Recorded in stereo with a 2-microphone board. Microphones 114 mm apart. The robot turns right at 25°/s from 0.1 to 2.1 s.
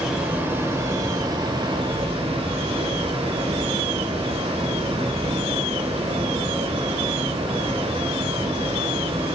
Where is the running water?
170° right, 1.3 m; by 9.3 s 120° right, 1.3 m.